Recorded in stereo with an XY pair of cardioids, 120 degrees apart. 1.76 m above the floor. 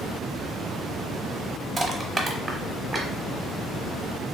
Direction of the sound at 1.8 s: 25° right.